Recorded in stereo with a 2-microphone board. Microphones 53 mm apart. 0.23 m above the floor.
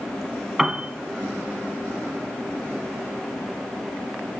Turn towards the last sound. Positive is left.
turn(degrees=-5)  # may be behind; listen again after turning